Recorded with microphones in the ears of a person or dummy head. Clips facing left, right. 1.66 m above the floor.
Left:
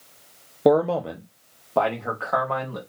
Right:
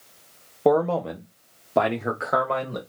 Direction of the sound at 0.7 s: 20° left (ahead or behind).